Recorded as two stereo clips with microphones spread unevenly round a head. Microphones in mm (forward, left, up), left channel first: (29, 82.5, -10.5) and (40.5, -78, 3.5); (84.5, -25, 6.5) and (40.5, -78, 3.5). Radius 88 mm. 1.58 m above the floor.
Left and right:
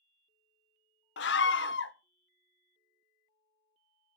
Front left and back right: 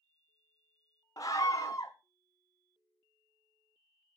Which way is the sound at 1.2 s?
115° left.